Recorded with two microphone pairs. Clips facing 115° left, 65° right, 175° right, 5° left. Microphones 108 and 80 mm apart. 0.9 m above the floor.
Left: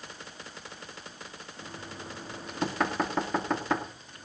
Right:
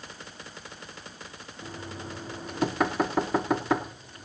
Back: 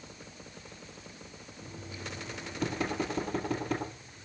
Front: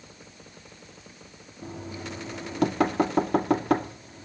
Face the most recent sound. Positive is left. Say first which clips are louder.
# right 4 dB, front 7 dB
turn(degrees=20)